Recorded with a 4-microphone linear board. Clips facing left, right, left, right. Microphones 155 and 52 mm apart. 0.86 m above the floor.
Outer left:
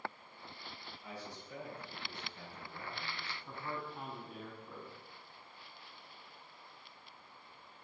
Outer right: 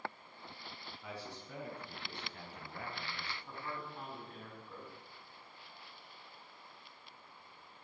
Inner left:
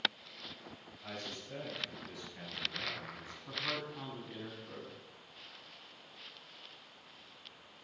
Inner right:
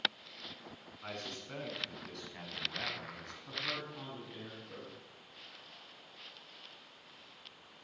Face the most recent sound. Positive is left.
turn(degrees=5)  # may be behind; listen again after turning